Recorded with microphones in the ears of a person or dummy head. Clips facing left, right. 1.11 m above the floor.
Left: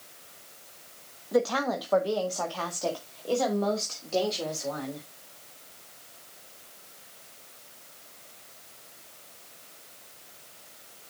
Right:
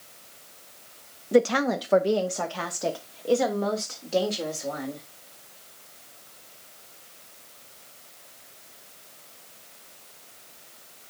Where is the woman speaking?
40° right (ahead or behind), 0.7 m; by 5.0 s 20° right (ahead or behind), 3 m.